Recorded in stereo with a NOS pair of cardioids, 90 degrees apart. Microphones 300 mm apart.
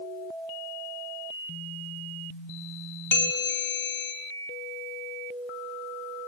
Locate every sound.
3.1 s a bell: 35° left, 1.8 m